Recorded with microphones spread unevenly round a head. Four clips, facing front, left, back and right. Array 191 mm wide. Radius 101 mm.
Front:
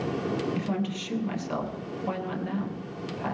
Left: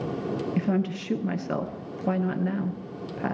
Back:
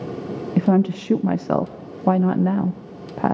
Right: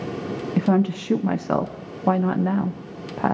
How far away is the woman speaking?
About 1.0 m.